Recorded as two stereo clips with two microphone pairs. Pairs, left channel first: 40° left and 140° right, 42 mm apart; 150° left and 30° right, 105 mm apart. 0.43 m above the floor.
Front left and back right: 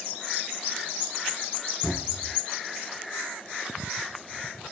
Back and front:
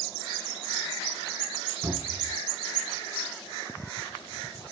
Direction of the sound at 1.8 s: 50° left.